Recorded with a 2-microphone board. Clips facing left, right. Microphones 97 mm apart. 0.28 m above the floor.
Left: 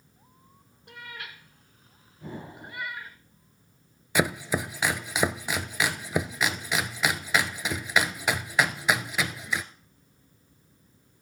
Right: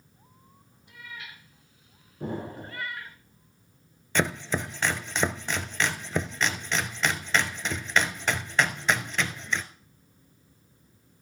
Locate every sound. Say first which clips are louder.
0.9 s a cat meowing: left 2 dB; 75° left (ahead or behind), 1.6 m; by 3.2 s 5° left (ahead or behind), 1.7 m
2.2 s an explosion: right 6 dB; 70° right (ahead or behind), 4 m
4.2 s chopping: left 1 dB; 10° left (ahead or behind), 0.7 m